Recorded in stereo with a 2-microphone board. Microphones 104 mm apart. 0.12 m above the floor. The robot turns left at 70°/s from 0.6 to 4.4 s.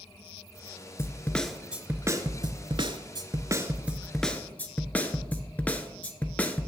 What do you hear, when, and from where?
1.0 s a snare drum: 40° left, 0.7 m; by 6.7 s 160° left, 0.7 m